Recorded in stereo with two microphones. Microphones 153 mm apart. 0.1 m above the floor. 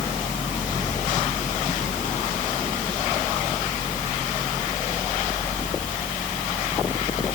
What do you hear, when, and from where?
Only background noise.